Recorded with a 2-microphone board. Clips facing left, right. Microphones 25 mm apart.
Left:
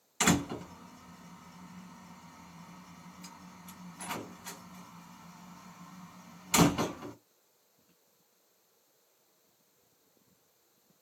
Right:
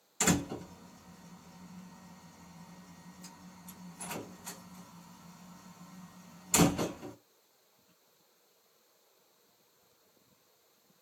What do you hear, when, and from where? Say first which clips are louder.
0.2 s a door slam: left 2 dB; 40° left (ahead or behind), 1.6 m